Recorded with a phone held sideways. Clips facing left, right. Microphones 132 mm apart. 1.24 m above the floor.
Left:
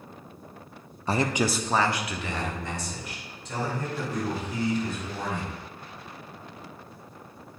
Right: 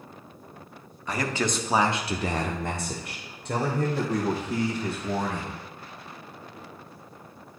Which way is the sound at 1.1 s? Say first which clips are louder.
Left 3 dB; 30° left (ahead or behind).